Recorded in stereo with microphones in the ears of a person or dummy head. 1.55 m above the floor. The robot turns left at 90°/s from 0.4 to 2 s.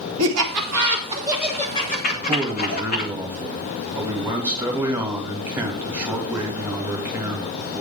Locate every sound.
0.2 s laughter: 85° right, 2.5 m; by 3.1 s 50° left (ahead or behind), 2.5 m
2.1 s a man speaking: 5° right (ahead or behind), 2.5 m